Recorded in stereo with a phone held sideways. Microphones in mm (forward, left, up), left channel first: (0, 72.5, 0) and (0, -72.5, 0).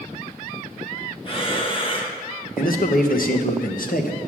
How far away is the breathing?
About 0.9 m.